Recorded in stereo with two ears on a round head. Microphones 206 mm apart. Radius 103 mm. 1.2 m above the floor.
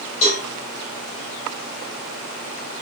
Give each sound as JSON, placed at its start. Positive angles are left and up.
{"t": 0.2, "sound": "a cowbell", "side_deg": 30, "distance_m": 2.5}